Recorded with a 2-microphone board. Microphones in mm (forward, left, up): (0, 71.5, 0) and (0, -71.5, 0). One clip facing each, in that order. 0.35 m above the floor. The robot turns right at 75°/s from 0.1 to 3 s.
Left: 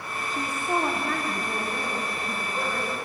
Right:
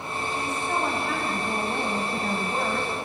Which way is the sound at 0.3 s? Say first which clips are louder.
Left 2 dB; 130° left.